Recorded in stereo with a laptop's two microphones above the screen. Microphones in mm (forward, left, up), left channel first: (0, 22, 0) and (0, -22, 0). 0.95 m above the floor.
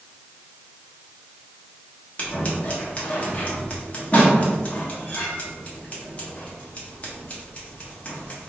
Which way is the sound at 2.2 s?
30° left (ahead or behind).